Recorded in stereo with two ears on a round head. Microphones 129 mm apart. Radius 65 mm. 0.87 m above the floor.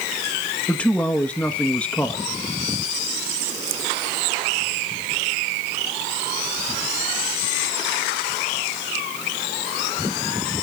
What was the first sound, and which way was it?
A man speaking, 10° left (ahead or behind).